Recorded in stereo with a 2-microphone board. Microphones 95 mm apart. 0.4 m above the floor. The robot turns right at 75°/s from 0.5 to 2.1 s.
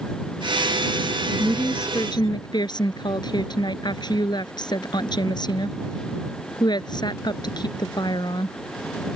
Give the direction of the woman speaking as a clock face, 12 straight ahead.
12 o'clock.